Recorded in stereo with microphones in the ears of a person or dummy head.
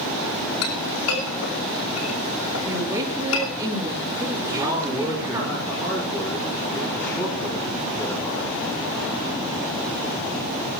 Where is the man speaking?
15° left (ahead or behind), 5.5 m.